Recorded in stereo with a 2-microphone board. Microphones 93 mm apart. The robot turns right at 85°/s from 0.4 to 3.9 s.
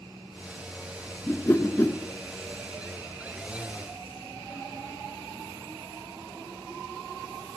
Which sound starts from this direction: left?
A whoosh, at 1.3 s.